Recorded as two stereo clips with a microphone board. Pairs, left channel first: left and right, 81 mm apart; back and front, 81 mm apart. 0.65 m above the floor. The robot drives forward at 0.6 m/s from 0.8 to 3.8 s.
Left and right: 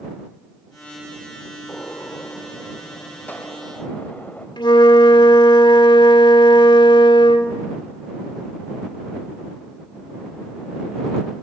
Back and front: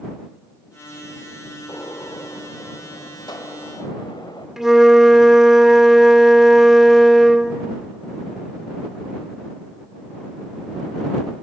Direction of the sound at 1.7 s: 145° left.